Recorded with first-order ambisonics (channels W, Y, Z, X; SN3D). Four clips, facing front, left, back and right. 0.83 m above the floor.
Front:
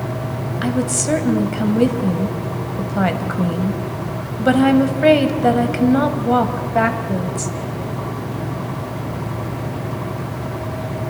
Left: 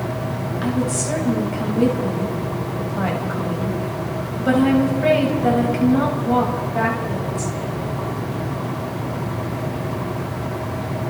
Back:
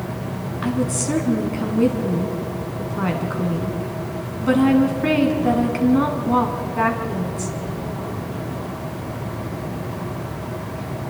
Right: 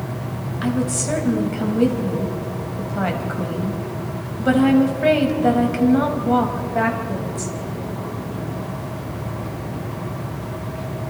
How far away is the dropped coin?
No dropped coin in this recording.